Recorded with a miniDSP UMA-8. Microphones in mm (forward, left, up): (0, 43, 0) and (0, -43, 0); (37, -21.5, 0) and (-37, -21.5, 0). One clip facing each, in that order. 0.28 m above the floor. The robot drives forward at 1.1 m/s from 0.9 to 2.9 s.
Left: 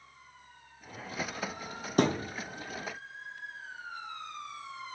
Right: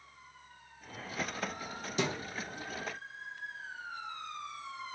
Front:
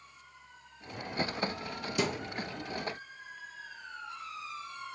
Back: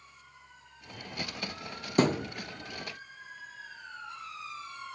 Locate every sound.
2.0 s a thud: 135° left, 1.5 m; by 2.3 s 145° left, 1.8 m